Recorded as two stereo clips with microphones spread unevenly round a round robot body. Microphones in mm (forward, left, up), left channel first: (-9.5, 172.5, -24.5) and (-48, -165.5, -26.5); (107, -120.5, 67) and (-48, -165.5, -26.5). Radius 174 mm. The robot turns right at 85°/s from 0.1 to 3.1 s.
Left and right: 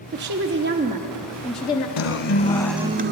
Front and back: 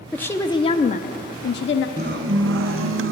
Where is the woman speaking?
125° right, 0.6 m; by 1.9 s 25° left, 0.6 m.